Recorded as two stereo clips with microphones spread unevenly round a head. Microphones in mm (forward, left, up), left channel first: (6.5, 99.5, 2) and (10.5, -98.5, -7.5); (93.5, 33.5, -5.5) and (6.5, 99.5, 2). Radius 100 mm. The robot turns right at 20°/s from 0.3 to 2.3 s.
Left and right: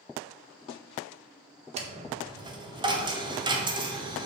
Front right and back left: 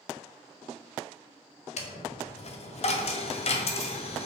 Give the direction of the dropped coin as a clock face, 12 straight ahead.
1 o'clock.